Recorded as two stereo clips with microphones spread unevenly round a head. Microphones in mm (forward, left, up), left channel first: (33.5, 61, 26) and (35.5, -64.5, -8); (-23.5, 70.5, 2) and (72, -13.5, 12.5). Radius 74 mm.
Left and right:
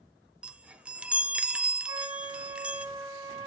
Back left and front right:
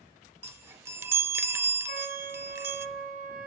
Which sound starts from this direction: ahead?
A chime, at 0.4 s.